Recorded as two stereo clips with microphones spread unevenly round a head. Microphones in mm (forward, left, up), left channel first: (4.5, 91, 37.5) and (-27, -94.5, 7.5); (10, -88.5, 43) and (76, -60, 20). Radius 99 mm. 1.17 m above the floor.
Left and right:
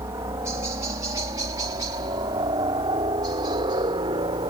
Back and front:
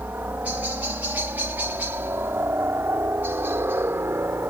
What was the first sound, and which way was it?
A helicopter, 30° right.